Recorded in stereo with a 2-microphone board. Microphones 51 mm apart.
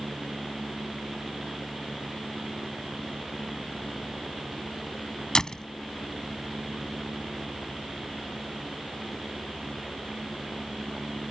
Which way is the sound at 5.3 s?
10° left (ahead or behind).